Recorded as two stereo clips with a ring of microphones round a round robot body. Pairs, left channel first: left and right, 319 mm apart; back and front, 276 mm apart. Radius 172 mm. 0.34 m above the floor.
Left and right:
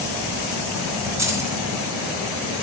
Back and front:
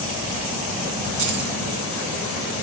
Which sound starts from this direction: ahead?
Keys jangling, at 1.2 s.